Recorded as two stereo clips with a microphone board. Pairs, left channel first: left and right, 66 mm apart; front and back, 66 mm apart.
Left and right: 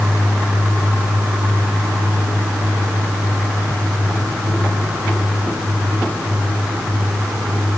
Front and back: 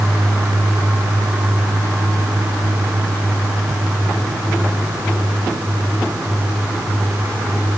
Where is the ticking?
No ticking in this recording.